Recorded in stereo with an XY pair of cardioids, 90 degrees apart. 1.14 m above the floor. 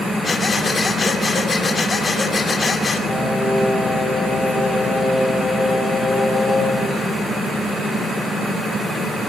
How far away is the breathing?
About 2.5 m.